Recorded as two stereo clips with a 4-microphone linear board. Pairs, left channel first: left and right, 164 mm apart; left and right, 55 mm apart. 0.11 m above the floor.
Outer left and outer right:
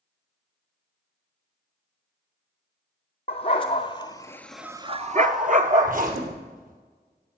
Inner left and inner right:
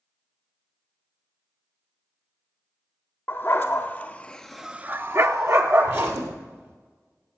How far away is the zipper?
About 2.5 m.